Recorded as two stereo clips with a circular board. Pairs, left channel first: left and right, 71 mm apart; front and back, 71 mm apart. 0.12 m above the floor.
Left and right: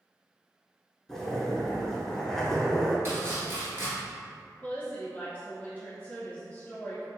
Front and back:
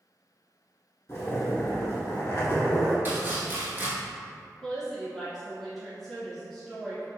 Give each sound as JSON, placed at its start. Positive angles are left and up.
{"t": 1.1, "sound": "a zipper", "azimuth_deg": 15, "distance_m": 0.9}
{"t": 3.0, "sound": "chopping", "azimuth_deg": -130, "distance_m": 0.8}
{"t": 4.6, "sound": "a woman speaking", "azimuth_deg": 90, "distance_m": 1.2}